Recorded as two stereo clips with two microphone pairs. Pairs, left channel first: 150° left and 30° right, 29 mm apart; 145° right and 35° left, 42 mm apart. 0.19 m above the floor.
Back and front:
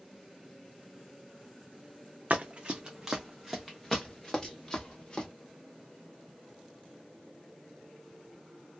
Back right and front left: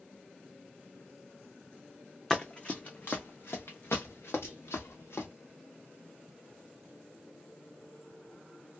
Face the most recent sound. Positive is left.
turn(degrees=-140)